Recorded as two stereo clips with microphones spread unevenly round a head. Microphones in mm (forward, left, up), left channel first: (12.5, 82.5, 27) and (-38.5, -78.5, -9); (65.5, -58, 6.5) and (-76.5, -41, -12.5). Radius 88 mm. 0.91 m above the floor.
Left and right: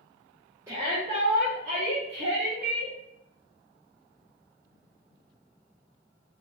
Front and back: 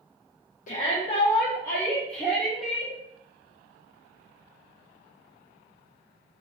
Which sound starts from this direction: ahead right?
A shout, at 0.7 s.